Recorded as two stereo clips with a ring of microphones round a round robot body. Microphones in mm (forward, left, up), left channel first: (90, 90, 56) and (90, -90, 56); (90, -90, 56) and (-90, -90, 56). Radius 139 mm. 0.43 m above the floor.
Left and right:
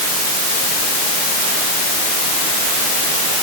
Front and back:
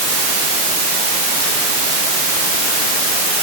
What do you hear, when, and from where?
Only background noise.